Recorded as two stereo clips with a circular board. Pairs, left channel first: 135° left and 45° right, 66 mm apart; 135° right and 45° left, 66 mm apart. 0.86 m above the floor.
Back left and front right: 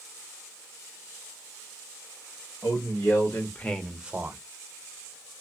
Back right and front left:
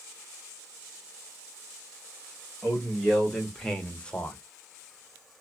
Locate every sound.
2.6 s a man speaking: 130° left, 1.6 m; by 4.4 s 70° right, 1.0 m